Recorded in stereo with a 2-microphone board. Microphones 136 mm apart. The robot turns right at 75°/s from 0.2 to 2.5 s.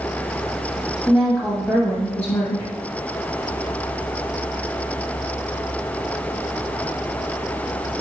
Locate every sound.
1.1 s a woman speaking: 5° right (ahead or behind), 0.9 m; by 2.7 s 20° left (ahead or behind), 0.9 m